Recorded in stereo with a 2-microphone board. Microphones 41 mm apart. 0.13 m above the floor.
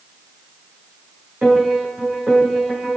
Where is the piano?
45° right (ahead or behind), 7.5 m.